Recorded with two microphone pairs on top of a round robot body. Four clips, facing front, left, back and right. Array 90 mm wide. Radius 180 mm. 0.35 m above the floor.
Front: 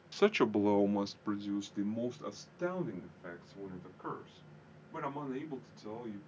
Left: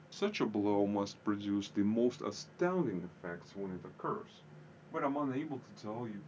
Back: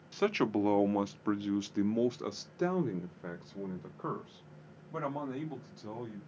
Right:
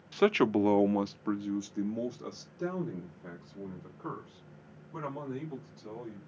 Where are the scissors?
I don't hear scissors.